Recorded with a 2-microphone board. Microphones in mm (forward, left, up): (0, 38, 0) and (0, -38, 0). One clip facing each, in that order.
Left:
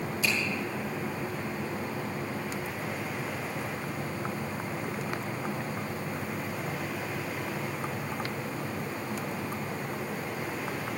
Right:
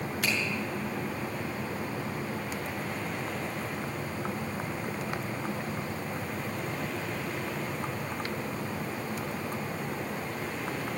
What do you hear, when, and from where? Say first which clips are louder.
0.2 s a finger snap: left 1 dB; 55° right (ahead or behind), 7 m